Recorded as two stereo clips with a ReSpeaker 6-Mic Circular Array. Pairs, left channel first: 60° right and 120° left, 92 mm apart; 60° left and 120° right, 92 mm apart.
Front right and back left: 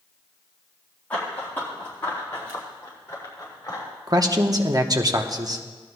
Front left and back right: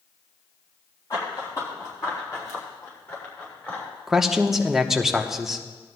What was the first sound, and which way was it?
Running footsteps, 10° left.